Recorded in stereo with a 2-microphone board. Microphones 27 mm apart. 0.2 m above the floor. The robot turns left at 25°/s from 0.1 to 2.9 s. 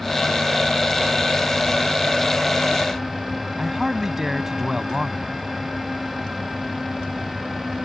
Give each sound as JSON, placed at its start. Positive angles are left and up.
{"t": 3.6, "sound": "a man speaking", "side_deg": -20}